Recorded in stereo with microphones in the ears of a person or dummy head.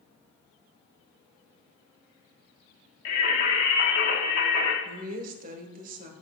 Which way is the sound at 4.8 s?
50° right (ahead or behind).